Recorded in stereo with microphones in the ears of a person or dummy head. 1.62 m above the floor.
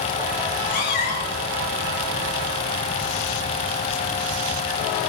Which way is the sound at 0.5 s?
50° left (ahead or behind).